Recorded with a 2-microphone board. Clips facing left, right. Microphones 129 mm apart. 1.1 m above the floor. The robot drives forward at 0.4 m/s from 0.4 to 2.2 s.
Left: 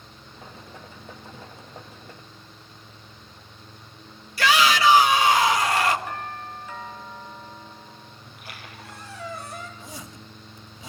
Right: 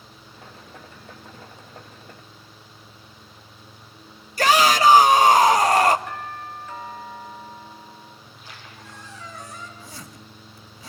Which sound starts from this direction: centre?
A doorbell, at 6.1 s.